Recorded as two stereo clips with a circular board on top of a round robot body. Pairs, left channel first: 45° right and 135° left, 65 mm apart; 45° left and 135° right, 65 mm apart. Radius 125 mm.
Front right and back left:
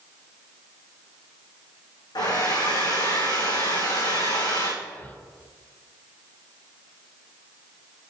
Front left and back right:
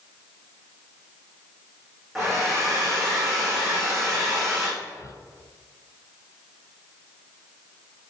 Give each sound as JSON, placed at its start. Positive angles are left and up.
{"t": 2.1, "sound": "a hair dryer", "azimuth_deg": -45, "distance_m": 5.5}
{"t": 4.8, "sound": "whispering", "azimuth_deg": 20, "distance_m": 1.6}